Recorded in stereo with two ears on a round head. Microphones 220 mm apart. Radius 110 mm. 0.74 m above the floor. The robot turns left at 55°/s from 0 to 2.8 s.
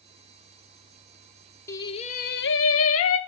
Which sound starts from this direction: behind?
Singing, at 1.7 s.